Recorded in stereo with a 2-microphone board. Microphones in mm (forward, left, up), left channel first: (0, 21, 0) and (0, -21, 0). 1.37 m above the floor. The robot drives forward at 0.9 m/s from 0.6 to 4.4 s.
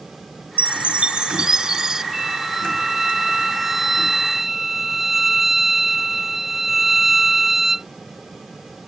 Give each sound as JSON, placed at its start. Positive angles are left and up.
{"t": 0.6, "sound": "a chime", "side_deg": -40}
{"t": 2.1, "sound": "a violin", "side_deg": -10}